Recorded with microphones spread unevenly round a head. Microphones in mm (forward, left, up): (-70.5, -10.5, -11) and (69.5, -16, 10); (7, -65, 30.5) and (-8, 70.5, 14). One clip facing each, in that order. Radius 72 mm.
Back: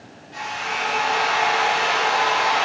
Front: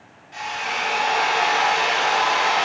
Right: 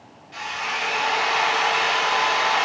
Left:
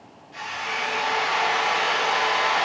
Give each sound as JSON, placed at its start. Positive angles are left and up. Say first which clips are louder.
{"t": 0.3, "sound": "a drill", "louder": "even, right 2 dB", "azimuth_deg": -75, "distance_m": 1.5}